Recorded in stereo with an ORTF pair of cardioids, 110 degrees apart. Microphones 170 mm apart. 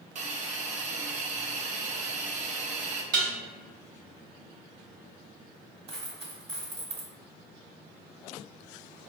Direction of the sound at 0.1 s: 45° right.